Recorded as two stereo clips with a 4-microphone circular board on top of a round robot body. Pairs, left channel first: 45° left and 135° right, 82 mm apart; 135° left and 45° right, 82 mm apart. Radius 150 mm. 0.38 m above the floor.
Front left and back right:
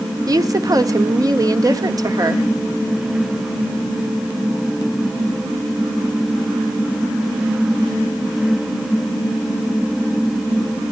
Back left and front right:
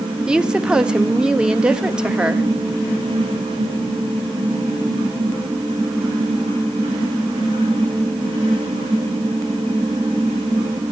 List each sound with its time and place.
0.3 s a woman speaking: 120° right, 1.3 m